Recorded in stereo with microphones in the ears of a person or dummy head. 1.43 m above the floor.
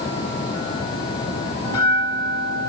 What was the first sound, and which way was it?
A bell, 20° left (ahead or behind).